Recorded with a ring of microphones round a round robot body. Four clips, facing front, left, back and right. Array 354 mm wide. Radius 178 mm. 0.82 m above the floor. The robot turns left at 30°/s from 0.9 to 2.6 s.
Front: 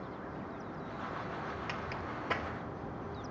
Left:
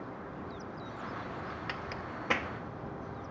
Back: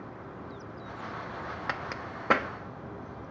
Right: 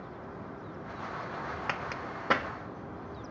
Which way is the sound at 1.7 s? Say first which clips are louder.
Right 4 dB, back 3 dB; 145° right.